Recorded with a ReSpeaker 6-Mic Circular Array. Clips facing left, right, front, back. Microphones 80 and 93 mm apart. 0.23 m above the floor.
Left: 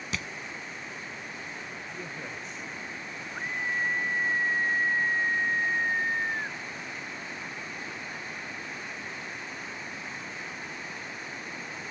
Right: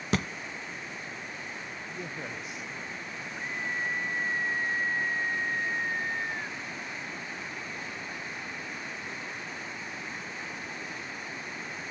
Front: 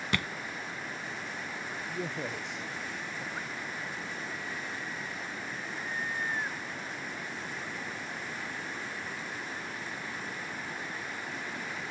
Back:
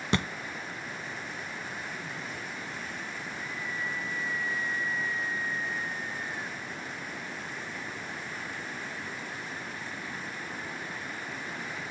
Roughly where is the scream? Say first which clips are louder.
Left 3 dB, back 2 dB; ahead left.